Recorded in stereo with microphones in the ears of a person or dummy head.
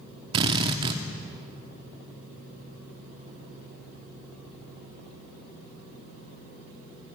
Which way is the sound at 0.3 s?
25° right (ahead or behind).